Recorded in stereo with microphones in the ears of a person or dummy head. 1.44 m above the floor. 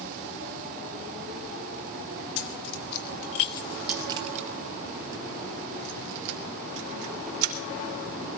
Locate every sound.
2.4 s keys jangling: 70° left (ahead or behind), 1.4 m; by 7.5 s 75° right (ahead or behind), 3.5 m